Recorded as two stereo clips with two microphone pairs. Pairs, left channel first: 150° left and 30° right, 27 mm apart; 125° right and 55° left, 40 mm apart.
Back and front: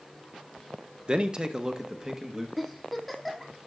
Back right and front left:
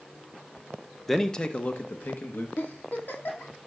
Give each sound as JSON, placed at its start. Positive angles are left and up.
{"t": 1.1, "sound": "a man speaking", "azimuth_deg": -40, "distance_m": 0.7}
{"t": 2.6, "sound": "a giggle", "azimuth_deg": -125, "distance_m": 1.7}